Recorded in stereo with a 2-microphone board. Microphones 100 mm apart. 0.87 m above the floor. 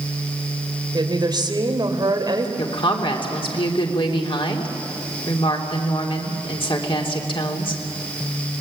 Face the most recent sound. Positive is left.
turn(degrees=60)  # may be behind; listen again after turning